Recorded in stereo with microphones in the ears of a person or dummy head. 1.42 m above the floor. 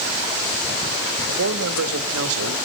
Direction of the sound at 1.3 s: 85° right.